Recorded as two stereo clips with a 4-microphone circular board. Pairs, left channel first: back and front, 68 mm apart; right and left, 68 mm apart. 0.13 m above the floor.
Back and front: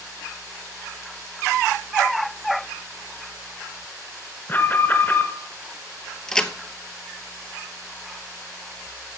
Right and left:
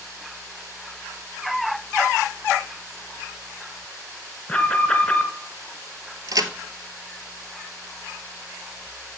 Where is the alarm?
155° right, 1.4 m.